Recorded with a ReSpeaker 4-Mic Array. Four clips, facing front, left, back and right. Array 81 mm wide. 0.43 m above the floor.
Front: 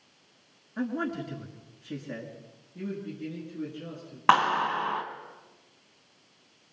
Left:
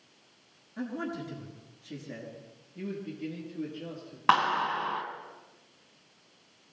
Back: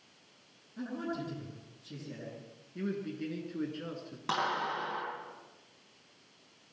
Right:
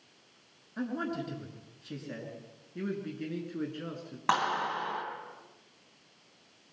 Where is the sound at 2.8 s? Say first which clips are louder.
Right 1 dB, even; 115° right, 5.5 m.